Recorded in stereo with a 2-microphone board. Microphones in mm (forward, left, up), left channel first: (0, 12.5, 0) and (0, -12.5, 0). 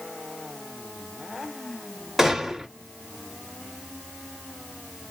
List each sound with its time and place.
2.2 s a gunshot: 5° right (ahead or behind), 1.8 m